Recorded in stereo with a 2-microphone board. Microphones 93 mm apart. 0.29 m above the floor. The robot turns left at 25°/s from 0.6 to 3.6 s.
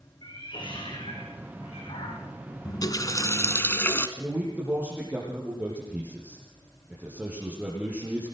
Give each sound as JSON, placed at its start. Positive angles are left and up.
{"t": 0.2, "sound": "a cat meowing", "side_deg": 60, "distance_m": 7.0}
{"t": 2.6, "sound": "a running tap", "side_deg": 50, "distance_m": 1.8}
{"t": 4.2, "sound": "a man speaking", "side_deg": -15, "distance_m": 7.0}